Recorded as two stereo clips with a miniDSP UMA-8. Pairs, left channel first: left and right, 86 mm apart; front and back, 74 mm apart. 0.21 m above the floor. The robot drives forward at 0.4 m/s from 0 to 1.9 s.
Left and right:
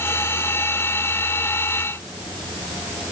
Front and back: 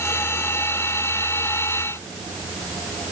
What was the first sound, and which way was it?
Only background noise.